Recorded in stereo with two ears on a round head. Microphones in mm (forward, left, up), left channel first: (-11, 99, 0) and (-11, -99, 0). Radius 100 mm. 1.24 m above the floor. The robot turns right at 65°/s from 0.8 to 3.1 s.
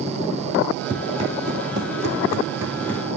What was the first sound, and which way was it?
Running footsteps, 5° right (ahead or behind).